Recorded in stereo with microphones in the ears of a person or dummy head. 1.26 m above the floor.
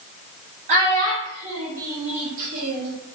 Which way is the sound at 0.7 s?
50° right (ahead or behind).